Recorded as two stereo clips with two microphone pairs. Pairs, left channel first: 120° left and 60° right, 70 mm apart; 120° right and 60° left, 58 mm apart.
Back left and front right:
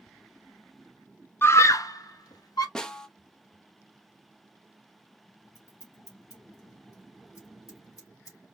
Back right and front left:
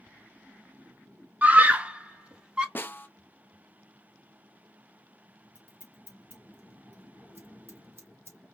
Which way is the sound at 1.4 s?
100° left.